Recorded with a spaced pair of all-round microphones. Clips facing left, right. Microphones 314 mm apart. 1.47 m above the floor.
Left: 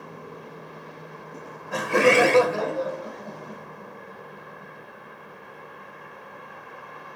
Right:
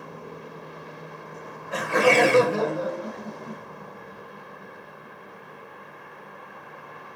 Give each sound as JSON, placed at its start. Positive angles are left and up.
{"t": 1.3, "sound": "laughter", "side_deg": 65, "distance_m": 1.3}